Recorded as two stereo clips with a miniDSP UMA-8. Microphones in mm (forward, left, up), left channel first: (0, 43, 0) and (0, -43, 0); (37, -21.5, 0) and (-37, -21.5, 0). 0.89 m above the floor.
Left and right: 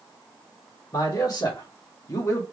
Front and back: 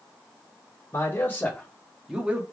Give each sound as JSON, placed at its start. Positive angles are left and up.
{"t": 0.9, "sound": "a man speaking", "azimuth_deg": 50, "distance_m": 2.0}